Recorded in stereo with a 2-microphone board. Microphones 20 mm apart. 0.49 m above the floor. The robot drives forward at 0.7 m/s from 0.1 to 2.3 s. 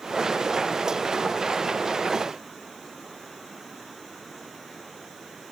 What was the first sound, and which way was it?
Only background noise.